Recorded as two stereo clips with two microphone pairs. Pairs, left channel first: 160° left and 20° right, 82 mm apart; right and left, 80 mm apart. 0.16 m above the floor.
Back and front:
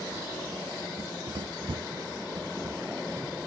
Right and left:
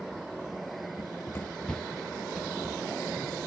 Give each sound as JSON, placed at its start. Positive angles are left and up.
{"t": 1.0, "sound": "running footsteps", "azimuth_deg": -55, "distance_m": 0.5}